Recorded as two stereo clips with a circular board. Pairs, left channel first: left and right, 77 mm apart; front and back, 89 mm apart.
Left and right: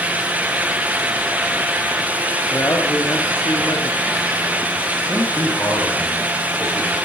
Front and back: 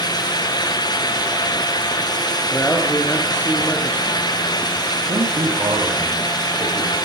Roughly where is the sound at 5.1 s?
Behind left.